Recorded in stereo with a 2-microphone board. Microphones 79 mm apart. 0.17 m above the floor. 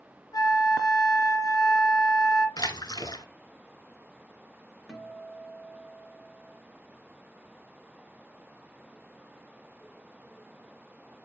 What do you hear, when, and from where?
0.3 s a flute: 55° left (ahead or behind), 1.0 m
2.6 s a splash: 55° left (ahead or behind), 0.9 m
4.9 s a guitar: 10° left (ahead or behind), 1.9 m